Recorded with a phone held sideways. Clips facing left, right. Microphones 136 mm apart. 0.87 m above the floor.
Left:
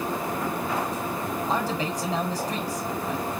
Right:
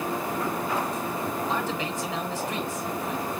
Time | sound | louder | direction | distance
1.5 | a man speaking | left 2 dB | 40° left (ahead or behind) | 3.5 m